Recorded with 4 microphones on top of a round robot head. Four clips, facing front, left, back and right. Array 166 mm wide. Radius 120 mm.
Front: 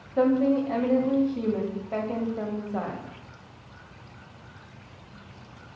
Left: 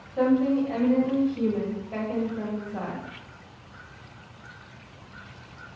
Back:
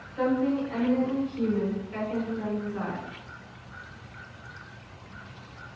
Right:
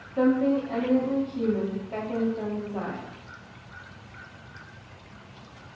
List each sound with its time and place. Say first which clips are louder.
0.2 s a woman speaking: even, front 4 dB; straight ahead, 1.0 m